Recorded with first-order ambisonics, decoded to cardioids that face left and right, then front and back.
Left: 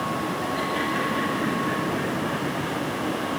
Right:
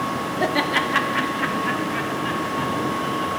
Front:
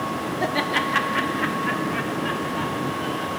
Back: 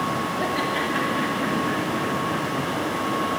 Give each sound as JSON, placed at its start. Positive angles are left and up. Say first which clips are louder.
{"t": 0.4, "sound": "laughter", "louder": "right 9 dB, front 4 dB", "azimuth_deg": -70, "distance_m": 1.2}